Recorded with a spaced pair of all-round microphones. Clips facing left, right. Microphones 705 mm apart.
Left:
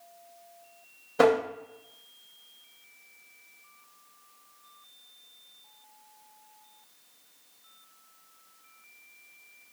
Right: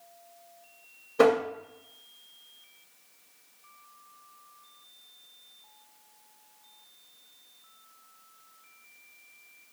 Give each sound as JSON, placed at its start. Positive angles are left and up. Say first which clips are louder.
{"t": 1.2, "sound": "tapping", "louder": "right 1 dB", "side_deg": 20, "distance_m": 0.8}